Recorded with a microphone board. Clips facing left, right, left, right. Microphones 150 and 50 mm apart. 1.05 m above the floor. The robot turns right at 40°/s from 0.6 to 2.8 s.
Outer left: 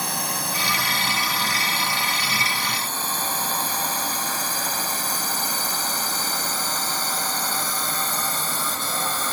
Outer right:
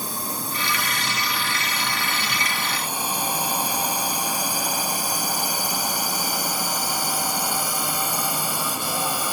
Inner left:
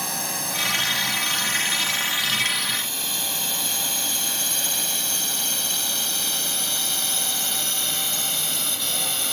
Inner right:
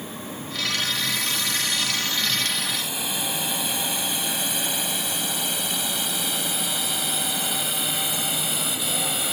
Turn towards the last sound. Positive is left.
turn(degrees=-10)  # may be behind; listen again after turning